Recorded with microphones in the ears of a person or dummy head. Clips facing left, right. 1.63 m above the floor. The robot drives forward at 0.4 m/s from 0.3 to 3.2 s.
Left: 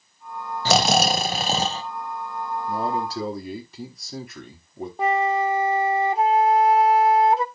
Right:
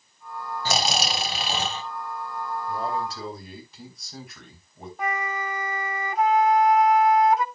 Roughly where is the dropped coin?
No dropped coin in this recording.